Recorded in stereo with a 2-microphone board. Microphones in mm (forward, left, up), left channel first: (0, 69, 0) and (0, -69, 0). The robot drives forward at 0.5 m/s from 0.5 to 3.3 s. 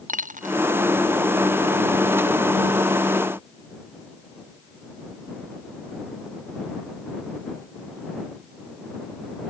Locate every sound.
0.1 s a dropped coin: 65° right (ahead or behind)